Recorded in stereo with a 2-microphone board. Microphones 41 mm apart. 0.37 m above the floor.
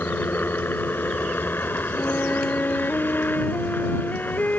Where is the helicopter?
60° left (ahead or behind).